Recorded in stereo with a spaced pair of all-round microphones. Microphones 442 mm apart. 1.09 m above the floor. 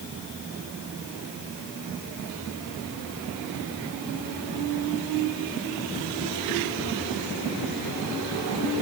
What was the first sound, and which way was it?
Only background noise.